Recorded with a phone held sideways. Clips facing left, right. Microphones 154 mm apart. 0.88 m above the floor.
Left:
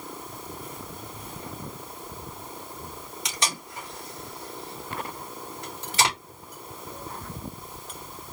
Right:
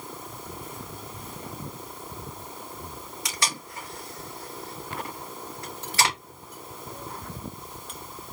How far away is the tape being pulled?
About 3 m.